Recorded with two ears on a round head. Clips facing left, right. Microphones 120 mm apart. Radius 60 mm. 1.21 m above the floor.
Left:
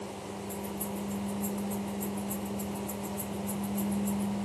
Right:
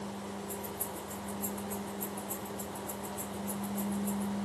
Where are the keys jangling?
15° right (ahead or behind), 4 m; by 4.3 s 15° left (ahead or behind), 4 m.